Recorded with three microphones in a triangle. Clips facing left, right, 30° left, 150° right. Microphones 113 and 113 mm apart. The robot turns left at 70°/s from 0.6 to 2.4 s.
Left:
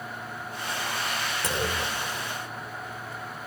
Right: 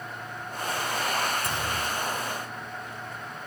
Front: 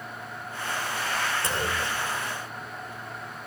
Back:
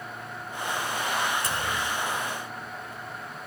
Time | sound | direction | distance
1.4 | a clunk | 95° left | 3 m